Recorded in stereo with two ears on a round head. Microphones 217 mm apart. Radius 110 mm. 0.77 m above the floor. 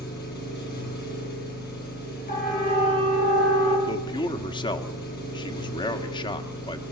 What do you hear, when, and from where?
0.0 s an engine running: 40° left (ahead or behind), 5.5 m
2.3 s a siren: 35° left (ahead or behind), 5.5 m; by 3.8 s 30° left (ahead or behind), 6.5 m
3.9 s a man speaking: 20° left (ahead or behind), 1.5 m